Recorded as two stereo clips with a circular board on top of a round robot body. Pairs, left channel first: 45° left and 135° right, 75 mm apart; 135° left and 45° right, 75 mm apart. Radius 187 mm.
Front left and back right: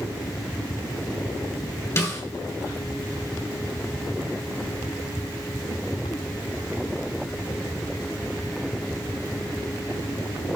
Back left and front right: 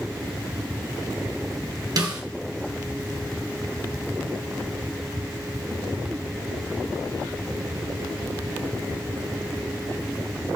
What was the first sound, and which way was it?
A snare drum, 5° right.